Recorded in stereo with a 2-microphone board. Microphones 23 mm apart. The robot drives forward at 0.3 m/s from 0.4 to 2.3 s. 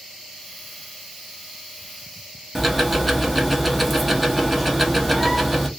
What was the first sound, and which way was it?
Ticking, 5° right (ahead or behind).